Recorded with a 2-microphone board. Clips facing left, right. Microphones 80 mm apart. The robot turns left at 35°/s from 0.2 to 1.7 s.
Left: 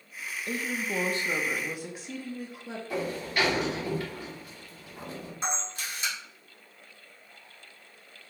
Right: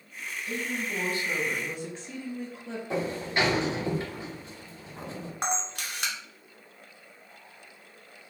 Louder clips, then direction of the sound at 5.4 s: Right 3 dB; 70° right (ahead or behind).